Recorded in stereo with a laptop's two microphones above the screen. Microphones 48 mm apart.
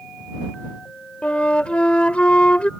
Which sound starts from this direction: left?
A flute, at 1.2 s.